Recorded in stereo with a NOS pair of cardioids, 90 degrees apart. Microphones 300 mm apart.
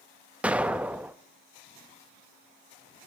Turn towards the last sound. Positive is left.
turn(degrees=-5)